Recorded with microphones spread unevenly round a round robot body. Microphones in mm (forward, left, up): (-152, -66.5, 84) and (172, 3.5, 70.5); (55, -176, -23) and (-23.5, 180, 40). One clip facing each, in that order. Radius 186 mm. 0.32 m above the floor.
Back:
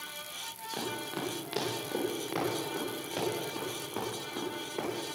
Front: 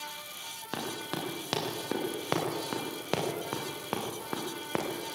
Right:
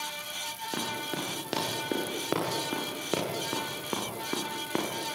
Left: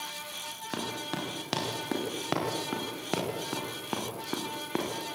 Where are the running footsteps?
45° left, 7 m; by 4.9 s 15° left, 5 m.